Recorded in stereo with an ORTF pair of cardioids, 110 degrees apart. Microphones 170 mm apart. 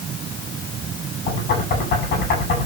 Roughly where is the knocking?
Ahead left.